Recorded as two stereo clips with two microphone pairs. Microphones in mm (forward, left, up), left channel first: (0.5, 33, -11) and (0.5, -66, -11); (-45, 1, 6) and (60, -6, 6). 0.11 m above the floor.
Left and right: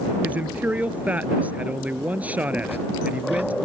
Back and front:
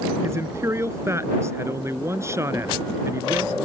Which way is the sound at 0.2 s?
30° right.